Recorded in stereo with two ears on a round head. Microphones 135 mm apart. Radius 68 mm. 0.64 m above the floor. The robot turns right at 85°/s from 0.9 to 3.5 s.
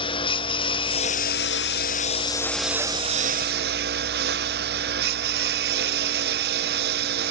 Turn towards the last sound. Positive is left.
turn(degrees=-105)